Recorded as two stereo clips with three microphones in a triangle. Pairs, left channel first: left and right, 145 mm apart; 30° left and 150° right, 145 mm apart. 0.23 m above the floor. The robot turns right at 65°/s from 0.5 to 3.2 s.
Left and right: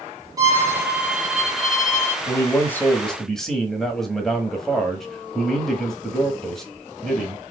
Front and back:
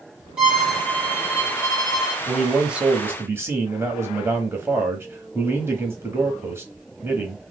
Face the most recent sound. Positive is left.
turn(degrees=175)